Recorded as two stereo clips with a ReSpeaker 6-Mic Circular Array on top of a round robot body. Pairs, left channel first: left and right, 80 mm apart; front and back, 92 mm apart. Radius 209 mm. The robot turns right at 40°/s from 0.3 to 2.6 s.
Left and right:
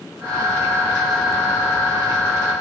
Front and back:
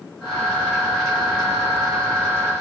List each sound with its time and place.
Only background noise.